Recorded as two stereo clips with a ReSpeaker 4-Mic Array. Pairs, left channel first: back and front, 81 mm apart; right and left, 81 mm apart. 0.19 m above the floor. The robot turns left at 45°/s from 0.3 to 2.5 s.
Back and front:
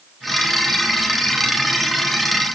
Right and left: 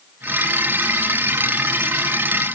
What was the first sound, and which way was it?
Only background noise.